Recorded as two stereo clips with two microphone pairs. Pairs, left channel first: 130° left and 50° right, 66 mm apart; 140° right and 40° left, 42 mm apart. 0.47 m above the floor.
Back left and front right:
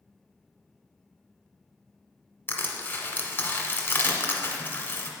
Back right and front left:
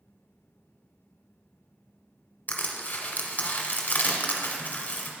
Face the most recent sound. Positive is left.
turn(degrees=175)